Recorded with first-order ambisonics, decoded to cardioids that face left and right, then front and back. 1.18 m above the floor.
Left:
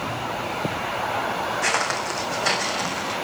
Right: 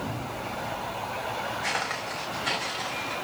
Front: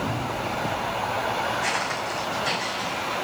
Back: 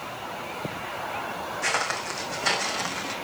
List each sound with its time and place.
1.6 s footsteps: 105° left, 3 m; by 3.1 s 135° left, 3 m